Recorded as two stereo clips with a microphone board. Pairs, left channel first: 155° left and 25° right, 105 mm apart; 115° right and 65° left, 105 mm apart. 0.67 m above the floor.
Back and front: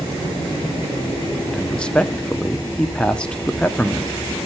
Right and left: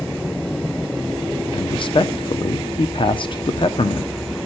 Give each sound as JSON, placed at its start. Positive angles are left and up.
{"t": 1.5, "sound": "a man speaking", "azimuth_deg": -125, "distance_m": 0.9}